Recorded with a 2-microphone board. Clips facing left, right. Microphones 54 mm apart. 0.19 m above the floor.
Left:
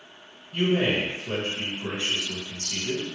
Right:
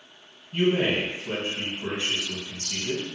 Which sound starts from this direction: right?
A man speaking, at 0.5 s.